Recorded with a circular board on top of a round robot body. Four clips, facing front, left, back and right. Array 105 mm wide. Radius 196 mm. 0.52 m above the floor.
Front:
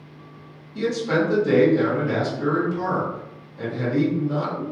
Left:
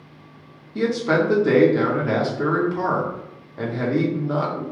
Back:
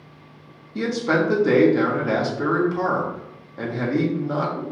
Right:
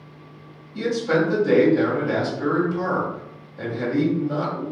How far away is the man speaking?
About 1.7 m.